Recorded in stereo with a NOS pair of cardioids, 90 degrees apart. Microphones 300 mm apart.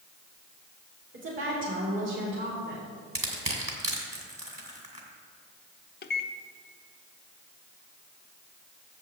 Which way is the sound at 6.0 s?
35° left.